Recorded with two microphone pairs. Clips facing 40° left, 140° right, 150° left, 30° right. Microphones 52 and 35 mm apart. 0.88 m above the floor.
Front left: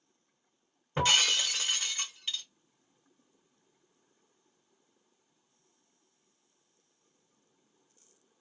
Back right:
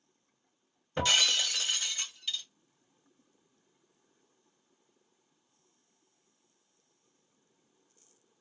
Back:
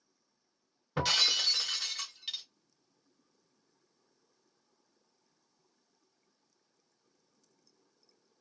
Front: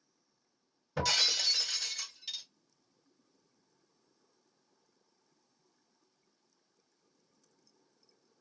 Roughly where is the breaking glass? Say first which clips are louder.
Front left 1 dB, back 2 dB; left.